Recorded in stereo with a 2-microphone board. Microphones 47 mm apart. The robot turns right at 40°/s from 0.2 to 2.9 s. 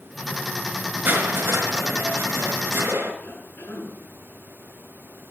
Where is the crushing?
135° right, 4.5 m; by 3.1 s 65° right, 4.5 m.